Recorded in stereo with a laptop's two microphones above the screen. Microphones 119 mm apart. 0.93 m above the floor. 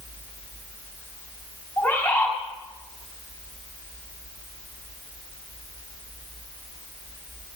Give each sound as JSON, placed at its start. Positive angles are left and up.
{"t": 1.8, "sound": "a bird", "side_deg": 10, "distance_m": 2.5}